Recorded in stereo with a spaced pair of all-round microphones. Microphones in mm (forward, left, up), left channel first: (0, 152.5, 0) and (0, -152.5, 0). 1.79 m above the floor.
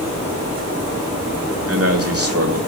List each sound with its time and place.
1.7 s a man speaking: 50° right (ahead or behind), 3 m